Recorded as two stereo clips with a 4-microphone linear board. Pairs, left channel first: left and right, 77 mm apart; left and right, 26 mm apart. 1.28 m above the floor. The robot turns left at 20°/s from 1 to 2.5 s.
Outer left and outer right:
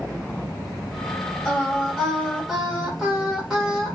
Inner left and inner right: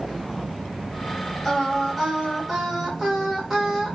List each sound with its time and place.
1.4 s singing: 10° left (ahead or behind), 2 m; by 4.0 s 10° right (ahead or behind), 2 m